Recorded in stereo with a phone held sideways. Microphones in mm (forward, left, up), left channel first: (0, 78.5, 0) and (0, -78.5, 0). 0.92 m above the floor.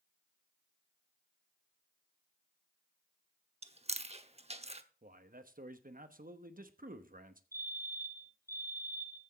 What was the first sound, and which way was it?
Chewing, 40° right (ahead or behind).